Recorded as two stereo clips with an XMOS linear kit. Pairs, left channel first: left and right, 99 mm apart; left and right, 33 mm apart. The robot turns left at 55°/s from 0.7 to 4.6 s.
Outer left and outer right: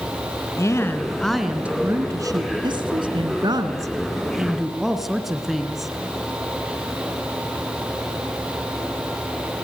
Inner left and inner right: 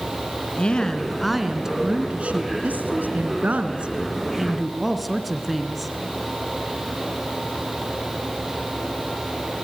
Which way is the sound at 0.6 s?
35° left.